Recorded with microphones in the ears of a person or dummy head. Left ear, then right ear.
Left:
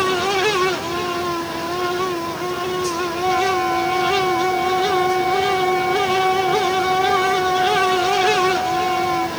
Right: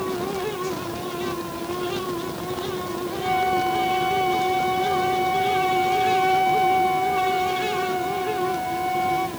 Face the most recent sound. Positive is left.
turn(degrees=-5)  # may be behind; listen again after turning